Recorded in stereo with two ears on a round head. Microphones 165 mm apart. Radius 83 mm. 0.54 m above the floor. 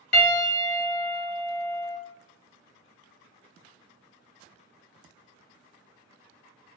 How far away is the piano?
About 0.9 m.